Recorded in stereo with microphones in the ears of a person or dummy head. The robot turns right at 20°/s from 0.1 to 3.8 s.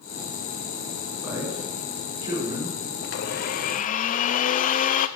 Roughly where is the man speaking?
Centre.